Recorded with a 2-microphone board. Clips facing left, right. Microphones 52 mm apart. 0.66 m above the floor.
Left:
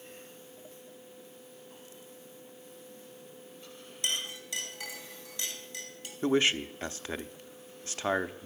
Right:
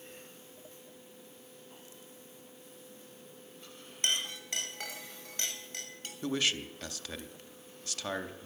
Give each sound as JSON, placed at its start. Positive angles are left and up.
{"t": 4.0, "sound": "a clink", "side_deg": -50, "distance_m": 2.5}
{"t": 6.2, "sound": "a man speaking", "side_deg": 30, "distance_m": 0.7}